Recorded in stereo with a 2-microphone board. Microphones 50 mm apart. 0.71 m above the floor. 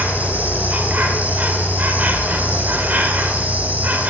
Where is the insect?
35° right (ahead or behind), 2.0 m.